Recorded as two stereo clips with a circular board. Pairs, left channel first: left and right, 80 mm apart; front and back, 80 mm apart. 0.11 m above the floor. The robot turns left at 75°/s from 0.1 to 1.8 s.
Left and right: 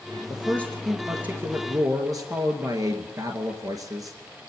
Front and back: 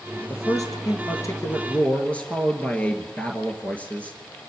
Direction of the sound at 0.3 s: 45° left.